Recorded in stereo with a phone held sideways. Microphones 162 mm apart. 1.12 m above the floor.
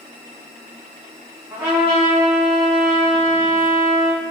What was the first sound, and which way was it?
A trumpet, 10° right (ahead or behind).